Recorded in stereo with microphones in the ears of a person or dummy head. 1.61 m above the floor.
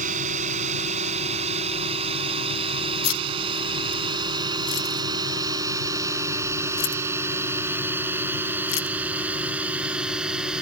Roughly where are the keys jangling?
Left.